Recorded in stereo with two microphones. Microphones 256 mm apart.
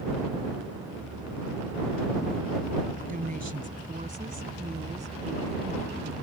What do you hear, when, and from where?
3.1 s a woman speaking: 30° right (ahead or behind); by 6.2 s 20° right (ahead or behind)